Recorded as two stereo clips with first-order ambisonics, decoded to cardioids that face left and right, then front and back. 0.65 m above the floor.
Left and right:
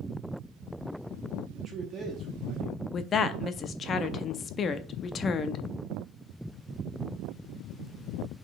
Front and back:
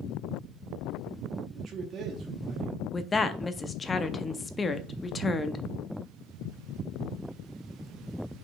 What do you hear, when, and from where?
1.5 s a man speaking: 145° right, 0.9 m
2.9 s a woman speaking: 60° left, 0.5 m